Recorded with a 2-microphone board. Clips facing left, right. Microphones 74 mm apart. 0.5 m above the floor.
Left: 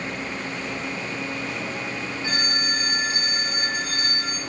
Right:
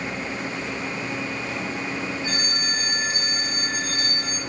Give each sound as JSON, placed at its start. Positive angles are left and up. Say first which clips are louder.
{"t": 2.2, "sound": "a phone ringing", "louder": "left 2 dB", "side_deg": 45, "distance_m": 1.0}